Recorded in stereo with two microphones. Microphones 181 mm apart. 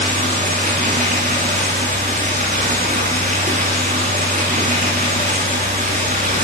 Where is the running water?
45° right (ahead or behind), 8.5 m.